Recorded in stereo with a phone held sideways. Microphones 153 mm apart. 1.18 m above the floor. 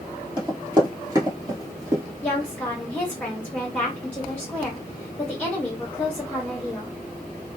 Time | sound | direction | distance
0.4 | running footsteps | 30° right (ahead or behind) | 1.4 m
2.2 | a woman speaking | 10° left (ahead or behind) | 0.8 m